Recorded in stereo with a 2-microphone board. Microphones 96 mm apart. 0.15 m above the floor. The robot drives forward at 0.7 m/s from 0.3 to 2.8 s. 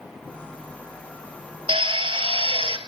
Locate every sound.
1.7 s a drill: 65° right (ahead or behind), 1.5 m; by 2.8 s 60° right (ahead or behind), 1.6 m